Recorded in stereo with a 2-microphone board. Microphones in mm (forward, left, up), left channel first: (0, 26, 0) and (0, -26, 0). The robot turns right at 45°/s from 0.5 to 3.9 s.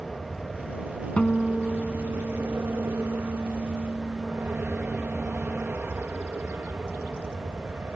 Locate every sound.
0.0 s an aircraft: 10° left (ahead or behind); by 8.0 s 45° right (ahead or behind)
1.2 s a guitar: 150° left; by 5.7 s 85° right